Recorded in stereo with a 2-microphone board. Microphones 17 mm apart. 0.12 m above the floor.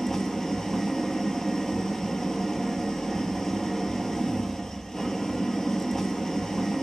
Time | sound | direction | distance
0.0 | an engine running | 25° left (ahead or behind) | 0.8 m